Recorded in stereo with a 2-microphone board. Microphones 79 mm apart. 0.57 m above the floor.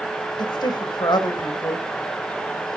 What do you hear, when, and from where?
0.4 s a woman speaking: 65° left (ahead or behind), 2 m